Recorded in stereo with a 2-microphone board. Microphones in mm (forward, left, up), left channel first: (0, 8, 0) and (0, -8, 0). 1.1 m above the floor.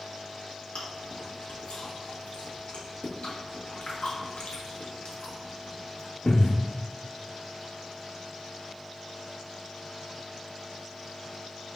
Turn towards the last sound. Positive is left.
turn(degrees=85)